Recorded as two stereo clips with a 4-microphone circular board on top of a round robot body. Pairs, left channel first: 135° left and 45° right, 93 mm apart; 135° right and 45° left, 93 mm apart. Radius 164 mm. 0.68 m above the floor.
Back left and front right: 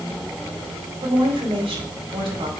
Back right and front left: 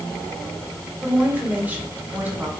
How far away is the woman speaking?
About 3.5 m.